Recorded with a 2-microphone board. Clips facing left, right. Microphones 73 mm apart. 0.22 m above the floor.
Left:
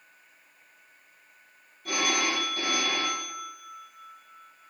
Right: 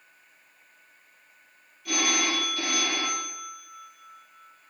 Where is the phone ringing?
45° left (ahead or behind), 3.5 m.